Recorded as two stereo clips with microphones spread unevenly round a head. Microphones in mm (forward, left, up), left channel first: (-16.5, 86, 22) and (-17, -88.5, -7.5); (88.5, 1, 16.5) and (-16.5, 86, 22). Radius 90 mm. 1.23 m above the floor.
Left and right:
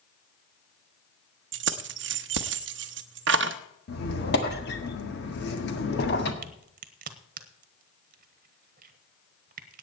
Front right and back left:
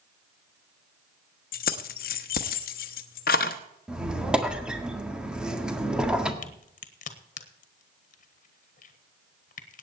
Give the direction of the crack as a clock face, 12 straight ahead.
2 o'clock.